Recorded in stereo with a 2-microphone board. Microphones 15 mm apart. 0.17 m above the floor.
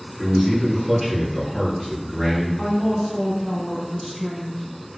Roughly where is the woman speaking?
Centre.